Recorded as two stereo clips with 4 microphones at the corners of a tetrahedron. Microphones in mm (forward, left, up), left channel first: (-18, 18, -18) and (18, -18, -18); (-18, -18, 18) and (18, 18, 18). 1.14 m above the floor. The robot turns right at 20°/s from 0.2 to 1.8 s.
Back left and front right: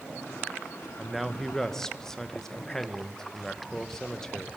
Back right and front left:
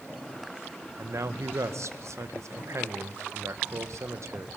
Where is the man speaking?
40° left, 0.8 m; by 4.5 s 55° left, 0.8 m.